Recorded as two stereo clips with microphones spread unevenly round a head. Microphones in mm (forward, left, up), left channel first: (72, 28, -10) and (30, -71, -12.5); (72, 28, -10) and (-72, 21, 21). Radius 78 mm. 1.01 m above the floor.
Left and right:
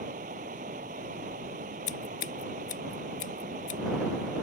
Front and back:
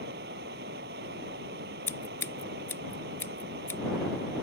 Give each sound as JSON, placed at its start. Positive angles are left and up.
{"t": 0.0, "sound": "running water", "azimuth_deg": -150}
{"t": 1.9, "sound": "scissors", "azimuth_deg": 75}